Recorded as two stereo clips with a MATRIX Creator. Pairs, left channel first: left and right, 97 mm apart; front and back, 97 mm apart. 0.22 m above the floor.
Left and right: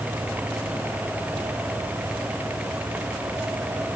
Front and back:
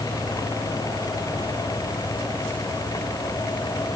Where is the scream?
I don't hear a scream.